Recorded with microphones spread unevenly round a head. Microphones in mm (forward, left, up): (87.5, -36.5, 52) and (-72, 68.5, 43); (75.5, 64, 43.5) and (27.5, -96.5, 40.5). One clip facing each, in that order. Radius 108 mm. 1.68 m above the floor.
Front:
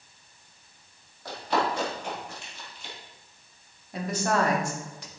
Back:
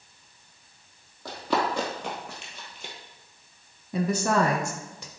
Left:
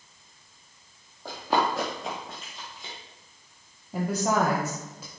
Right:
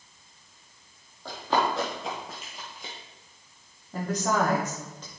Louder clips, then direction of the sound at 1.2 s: Even, even; 150° left.